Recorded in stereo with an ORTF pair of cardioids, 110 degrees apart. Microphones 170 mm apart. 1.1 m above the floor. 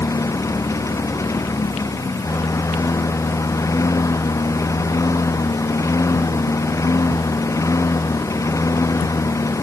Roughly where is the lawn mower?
Ahead.